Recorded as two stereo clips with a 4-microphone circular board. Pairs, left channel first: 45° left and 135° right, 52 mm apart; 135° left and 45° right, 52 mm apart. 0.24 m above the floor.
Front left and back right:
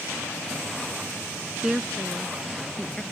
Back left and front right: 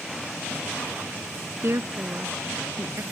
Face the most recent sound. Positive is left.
turn(degrees=-40)